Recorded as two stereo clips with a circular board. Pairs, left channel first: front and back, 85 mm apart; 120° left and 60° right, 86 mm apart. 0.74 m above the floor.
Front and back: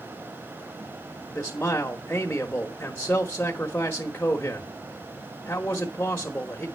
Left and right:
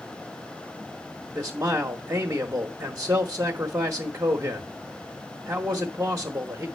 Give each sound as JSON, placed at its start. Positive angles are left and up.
{"t": 1.4, "sound": "a man speaking", "azimuth_deg": -60, "distance_m": 1.3}